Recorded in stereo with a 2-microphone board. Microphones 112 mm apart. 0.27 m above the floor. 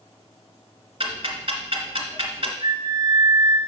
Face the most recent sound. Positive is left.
turn(degrees=-40)  # may be behind; listen again after turning